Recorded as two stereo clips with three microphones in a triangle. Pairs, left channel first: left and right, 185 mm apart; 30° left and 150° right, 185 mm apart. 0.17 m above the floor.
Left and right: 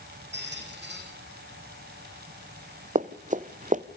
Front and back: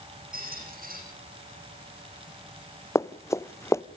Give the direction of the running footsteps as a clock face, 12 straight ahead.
2 o'clock.